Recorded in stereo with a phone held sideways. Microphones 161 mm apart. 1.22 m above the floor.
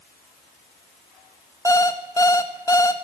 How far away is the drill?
I don't hear a drill.